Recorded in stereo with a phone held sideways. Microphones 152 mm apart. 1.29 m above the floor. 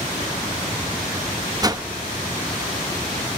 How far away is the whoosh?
About 0.6 m.